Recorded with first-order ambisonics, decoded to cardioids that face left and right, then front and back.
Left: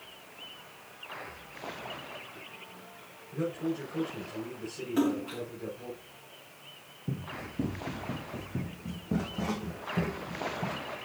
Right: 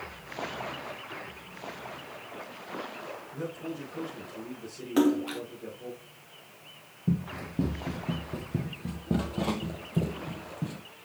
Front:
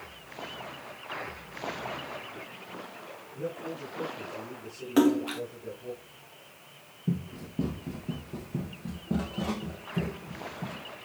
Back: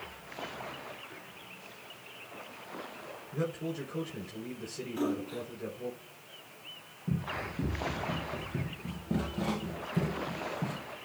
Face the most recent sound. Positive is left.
turn(degrees=-115)